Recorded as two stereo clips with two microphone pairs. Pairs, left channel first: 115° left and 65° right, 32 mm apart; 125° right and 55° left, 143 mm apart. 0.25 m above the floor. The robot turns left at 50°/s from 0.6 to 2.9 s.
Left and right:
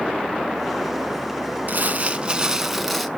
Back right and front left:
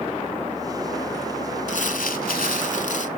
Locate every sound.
1.7 s crumpling: 95° right, 0.6 m; by 3.1 s 155° right, 0.6 m